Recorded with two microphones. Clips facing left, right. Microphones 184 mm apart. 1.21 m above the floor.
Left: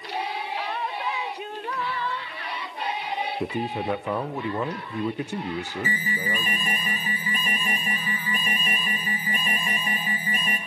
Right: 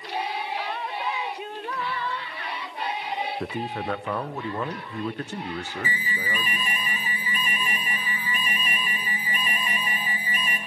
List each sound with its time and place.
3.4 s a man speaking: 15° left (ahead or behind), 0.6 m
5.8 s an alarm: 45° left (ahead or behind), 2.5 m